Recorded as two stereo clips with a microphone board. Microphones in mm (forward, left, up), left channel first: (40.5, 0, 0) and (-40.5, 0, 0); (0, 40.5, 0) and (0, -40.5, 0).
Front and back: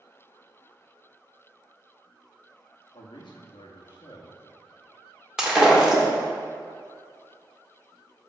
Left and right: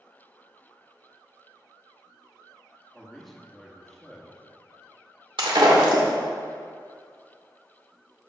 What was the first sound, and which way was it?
A man speaking, straight ahead.